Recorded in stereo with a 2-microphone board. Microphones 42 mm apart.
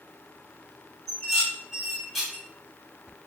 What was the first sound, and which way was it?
Dishes clattering, centre (ahead or behind).